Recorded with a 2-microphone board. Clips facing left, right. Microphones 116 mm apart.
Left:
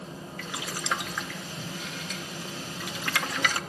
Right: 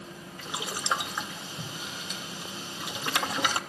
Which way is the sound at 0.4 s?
20° right (ahead or behind).